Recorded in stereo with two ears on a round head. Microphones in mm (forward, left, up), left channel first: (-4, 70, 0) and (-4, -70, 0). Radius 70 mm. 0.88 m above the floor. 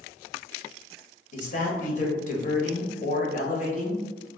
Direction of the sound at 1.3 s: 50° left (ahead or behind).